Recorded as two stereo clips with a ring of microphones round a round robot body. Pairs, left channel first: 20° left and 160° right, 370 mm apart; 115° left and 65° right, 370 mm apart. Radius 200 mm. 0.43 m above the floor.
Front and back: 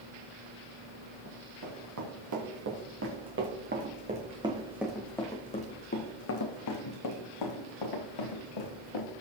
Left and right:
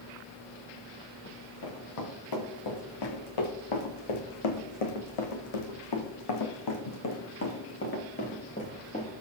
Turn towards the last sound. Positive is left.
turn(degrees=40)